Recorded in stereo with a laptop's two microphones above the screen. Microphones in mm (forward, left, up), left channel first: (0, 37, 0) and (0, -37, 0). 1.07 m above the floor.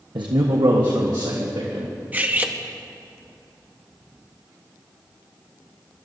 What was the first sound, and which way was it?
A man speaking, 80° right.